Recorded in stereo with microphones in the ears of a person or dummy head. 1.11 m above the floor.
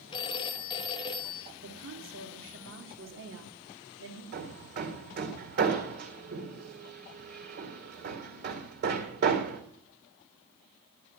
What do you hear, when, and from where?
0.1 s a phone ringing: 25° left (ahead or behind), 0.8 m
1.6 s a woman speaking: 70° right (ahead or behind), 3 m
4.3 s hammering: 55° right (ahead or behind), 2 m